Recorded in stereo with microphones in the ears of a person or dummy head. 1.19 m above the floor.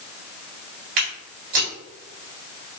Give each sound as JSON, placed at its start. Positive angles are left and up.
{"t": 1.0, "sound": "footsteps", "side_deg": -40, "distance_m": 1.4}